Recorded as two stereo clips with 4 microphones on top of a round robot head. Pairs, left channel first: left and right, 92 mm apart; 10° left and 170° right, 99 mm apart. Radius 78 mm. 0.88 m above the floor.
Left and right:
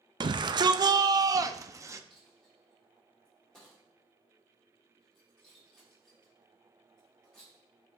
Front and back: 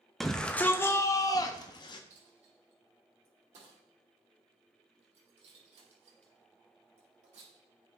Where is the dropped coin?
175° left, 5 m.